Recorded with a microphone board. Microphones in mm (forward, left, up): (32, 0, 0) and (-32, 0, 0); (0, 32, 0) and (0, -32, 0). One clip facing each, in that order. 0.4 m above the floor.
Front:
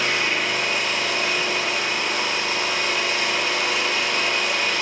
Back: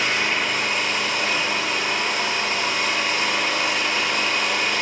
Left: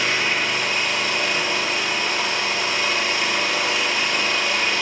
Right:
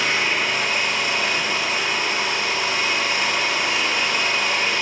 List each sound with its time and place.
0.0 s an engine running: 140° right, 1.0 m